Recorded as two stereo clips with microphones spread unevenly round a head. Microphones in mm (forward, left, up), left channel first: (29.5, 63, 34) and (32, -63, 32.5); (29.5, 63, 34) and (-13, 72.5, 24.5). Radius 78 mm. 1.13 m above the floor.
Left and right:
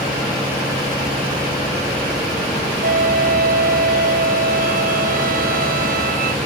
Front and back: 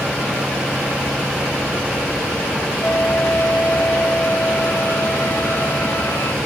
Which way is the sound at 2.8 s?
80° right.